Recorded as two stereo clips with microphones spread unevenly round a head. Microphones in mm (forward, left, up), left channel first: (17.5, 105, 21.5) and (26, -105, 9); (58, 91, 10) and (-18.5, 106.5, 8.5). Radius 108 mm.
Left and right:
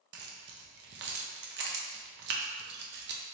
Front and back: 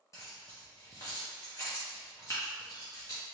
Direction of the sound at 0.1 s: 65° right.